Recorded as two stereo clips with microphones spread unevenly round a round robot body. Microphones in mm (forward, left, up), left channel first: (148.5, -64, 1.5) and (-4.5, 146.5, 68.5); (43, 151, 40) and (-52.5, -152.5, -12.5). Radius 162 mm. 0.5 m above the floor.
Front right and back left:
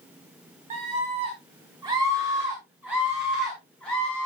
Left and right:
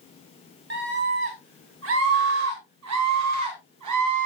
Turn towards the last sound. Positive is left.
turn(degrees=-135)